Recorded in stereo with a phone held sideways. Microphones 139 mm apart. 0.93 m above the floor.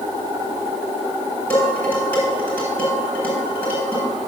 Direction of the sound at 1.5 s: 15° left (ahead or behind).